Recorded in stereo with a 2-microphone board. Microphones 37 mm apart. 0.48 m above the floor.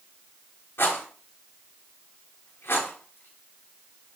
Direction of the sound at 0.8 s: 85° left.